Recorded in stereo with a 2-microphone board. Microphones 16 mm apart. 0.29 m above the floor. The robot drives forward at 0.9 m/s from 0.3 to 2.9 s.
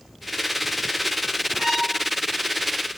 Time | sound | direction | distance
1.6 | a violin | 20° right (ahead or behind) | 1.5 m